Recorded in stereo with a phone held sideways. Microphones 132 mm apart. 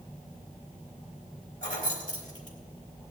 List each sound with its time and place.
1.6 s keys jangling: 75° left (ahead or behind), 2.5 m